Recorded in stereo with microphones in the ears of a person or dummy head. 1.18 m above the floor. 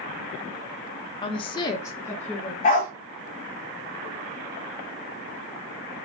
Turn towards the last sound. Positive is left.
turn(degrees=35)  # may be behind; listen again after turning